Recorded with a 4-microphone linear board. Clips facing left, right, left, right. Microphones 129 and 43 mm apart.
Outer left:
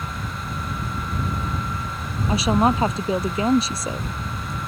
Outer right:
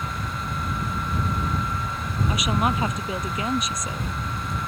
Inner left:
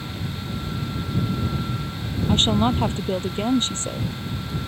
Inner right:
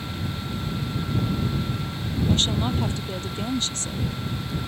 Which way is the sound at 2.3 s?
30° left (ahead or behind).